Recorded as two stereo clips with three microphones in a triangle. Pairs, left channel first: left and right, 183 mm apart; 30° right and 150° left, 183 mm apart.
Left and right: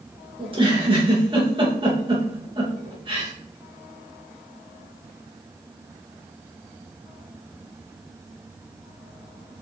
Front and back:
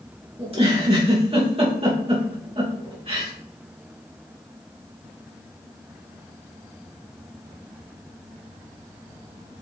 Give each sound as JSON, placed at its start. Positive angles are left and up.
{"t": 0.4, "sound": "a giggle", "azimuth_deg": -150, "distance_m": 2.5}